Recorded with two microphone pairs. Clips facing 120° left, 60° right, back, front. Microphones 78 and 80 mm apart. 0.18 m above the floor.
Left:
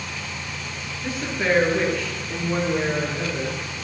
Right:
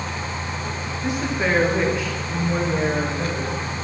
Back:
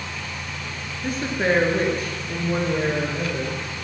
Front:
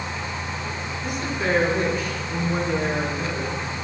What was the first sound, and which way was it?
A woman speaking, 130° right.